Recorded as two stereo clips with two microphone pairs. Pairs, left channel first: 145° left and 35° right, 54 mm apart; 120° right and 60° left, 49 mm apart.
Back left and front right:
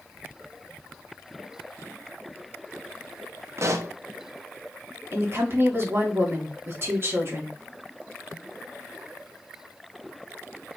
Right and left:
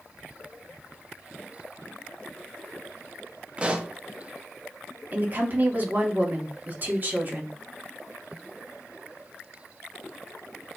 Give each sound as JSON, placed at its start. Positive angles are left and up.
{"t": 3.6, "sound": "a pop", "azimuth_deg": -5, "distance_m": 0.7}
{"t": 5.1, "sound": "a woman speaking", "azimuth_deg": 10, "distance_m": 1.6}